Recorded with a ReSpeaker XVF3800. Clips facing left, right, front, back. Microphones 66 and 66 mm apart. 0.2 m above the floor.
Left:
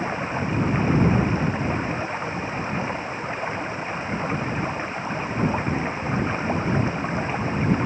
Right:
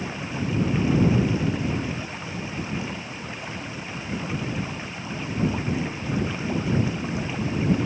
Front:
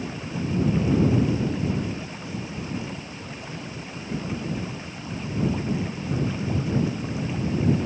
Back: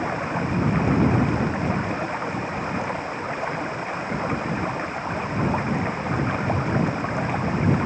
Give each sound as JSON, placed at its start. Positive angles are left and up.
{"t": 0.0, "sound": "running water", "azimuth_deg": 145}